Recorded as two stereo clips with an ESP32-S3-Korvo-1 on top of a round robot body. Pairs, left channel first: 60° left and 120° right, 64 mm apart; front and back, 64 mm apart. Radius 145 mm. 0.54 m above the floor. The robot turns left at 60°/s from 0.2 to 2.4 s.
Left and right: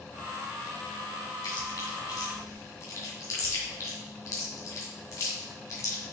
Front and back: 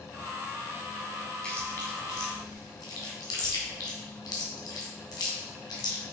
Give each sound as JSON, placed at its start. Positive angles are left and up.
{"t": 1.4, "sound": "chewing", "azimuth_deg": 75, "distance_m": 2.5}